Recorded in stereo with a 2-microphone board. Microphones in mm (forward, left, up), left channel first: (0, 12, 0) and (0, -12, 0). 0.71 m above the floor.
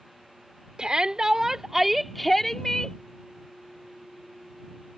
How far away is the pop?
No pop in this recording.